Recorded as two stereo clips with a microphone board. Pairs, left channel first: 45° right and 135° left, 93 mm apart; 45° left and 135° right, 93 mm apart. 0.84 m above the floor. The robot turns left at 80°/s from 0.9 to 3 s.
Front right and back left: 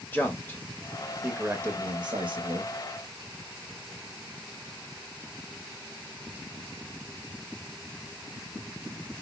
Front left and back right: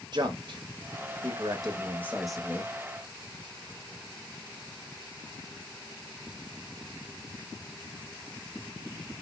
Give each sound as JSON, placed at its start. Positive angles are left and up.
{"t": 0.1, "sound": "a man speaking", "azimuth_deg": -110, "distance_m": 0.8}